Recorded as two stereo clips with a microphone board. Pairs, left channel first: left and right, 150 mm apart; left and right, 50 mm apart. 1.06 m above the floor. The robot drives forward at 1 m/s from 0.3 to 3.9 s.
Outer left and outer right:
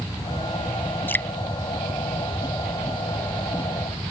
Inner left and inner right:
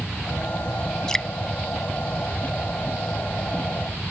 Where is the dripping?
15° left (ahead or behind).